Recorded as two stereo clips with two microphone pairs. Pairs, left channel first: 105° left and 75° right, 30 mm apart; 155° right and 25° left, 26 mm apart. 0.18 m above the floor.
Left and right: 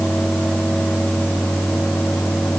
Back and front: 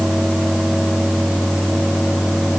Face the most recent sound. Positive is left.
No sound to turn to.